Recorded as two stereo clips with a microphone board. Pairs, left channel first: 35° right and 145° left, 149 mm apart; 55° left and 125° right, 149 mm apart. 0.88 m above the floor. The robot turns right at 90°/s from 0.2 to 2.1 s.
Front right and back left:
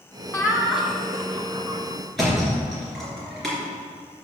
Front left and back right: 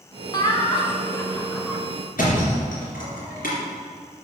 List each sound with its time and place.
0.3 s laughter: 20° left, 0.7 m; by 1.8 s 155° left, 0.7 m
2.2 s a thud: 55° left, 3 m